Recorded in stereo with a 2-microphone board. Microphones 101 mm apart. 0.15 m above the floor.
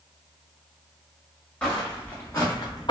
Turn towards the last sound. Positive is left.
turn(degrees=55)  # may be behind; listen again after turning